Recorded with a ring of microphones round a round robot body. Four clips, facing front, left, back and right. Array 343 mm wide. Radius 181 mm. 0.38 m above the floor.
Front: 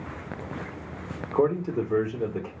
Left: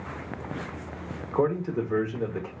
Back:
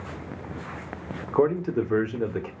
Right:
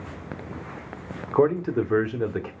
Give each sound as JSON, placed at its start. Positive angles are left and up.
{"t": 1.3, "sound": "a man speaking", "azimuth_deg": -115, "distance_m": 0.9}